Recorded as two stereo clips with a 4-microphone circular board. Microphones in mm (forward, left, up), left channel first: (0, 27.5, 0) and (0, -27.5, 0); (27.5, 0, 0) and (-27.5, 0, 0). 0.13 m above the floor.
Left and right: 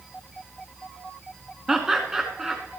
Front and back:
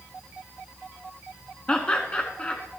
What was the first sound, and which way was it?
Laughter, 25° right.